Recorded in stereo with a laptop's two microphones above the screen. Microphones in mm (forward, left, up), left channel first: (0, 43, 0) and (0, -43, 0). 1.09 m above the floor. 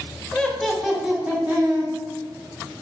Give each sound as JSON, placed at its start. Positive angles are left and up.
{"t": 0.3, "sound": "laughter", "side_deg": 10, "distance_m": 0.6}